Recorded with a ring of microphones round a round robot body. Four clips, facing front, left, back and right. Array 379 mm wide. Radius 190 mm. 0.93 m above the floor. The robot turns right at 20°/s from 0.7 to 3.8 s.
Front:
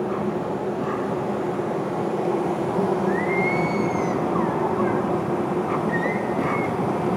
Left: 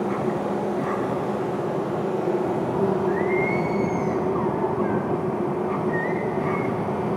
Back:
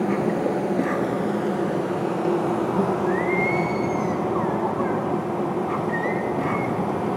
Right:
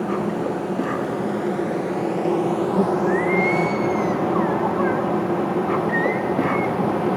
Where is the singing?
100° right, 0.9 m; by 6.8 s 85° right, 0.9 m.